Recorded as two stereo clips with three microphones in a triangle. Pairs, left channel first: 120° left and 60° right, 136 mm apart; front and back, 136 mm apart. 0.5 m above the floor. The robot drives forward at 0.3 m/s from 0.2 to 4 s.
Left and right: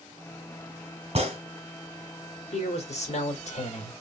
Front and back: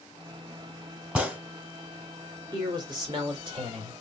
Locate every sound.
1.1 s a gunshot: 95° right, 1.6 m; by 1.4 s 100° right, 1.6 m
2.5 s a man speaking: 130° left, 1.7 m; by 3.9 s 140° left, 2.0 m